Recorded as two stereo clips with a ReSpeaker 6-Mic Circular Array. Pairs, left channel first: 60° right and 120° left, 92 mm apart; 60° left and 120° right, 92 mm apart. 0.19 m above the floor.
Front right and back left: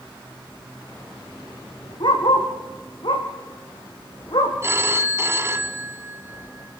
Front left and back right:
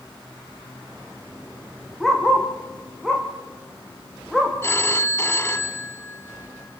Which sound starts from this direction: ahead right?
A dog barking, at 2.0 s.